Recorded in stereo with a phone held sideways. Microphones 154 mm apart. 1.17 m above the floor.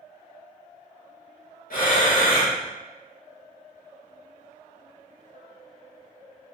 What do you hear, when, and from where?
1.7 s breathing: 75° left (ahead or behind), 1.1 m